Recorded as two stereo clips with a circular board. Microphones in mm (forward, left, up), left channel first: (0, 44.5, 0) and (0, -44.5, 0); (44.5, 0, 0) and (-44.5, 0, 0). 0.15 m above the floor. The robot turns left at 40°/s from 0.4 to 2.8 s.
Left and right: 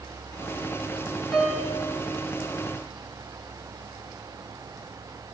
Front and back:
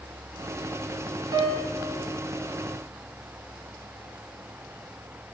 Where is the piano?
175° right, 0.5 m; by 1.8 s 165° left, 0.5 m.